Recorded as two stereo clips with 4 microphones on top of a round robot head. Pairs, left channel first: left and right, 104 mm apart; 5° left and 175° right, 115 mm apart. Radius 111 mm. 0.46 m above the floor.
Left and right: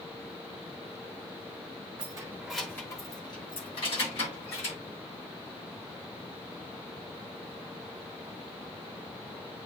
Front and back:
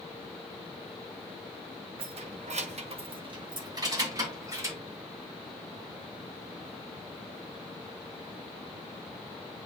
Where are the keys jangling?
135° right, 1.2 m; by 4.8 s 120° left, 4 m.